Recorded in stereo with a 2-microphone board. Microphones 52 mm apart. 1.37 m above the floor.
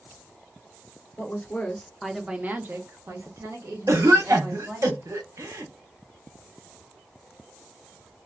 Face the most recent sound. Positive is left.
turn(degrees=-65)  # may be behind; listen again after turning